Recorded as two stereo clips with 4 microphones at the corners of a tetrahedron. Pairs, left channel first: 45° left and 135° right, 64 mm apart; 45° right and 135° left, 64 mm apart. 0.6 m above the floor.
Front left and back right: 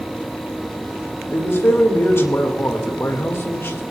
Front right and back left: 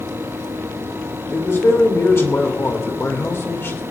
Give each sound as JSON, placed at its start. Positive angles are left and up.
{"t": 1.3, "sound": "a man speaking", "azimuth_deg": 0, "distance_m": 2.0}